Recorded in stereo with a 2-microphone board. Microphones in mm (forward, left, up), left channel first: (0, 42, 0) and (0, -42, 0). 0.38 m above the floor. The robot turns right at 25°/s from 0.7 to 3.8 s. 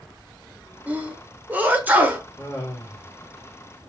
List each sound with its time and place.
0.9 s a sneeze: 20° right (ahead or behind), 1.0 m
2.4 s laughter: 20° left (ahead or behind), 1.3 m; by 3.1 s 25° left (ahead or behind), 1.3 m